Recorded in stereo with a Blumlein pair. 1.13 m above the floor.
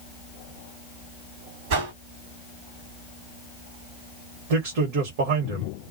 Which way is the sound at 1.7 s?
45° right.